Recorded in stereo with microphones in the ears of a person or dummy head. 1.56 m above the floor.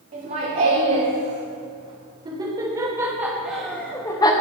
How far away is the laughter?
About 2.5 m.